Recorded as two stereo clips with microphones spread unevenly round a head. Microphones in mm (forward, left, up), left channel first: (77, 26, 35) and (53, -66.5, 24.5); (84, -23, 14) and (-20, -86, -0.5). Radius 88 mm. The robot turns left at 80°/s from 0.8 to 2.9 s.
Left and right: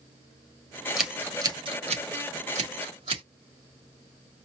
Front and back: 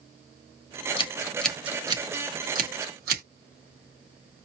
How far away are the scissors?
About 1.9 m.